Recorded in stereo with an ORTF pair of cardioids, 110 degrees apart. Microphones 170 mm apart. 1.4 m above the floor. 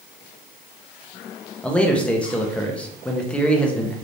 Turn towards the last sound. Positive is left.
turn(degrees=5)